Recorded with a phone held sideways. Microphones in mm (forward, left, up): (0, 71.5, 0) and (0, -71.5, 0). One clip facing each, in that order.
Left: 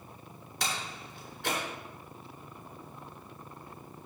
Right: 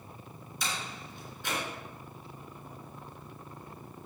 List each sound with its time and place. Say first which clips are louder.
0.6 s a door slam: left 2 dB; 75° left (ahead or behind), 3.5 m